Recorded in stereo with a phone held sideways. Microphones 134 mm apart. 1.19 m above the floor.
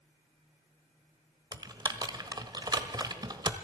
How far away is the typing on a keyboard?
About 1.2 m.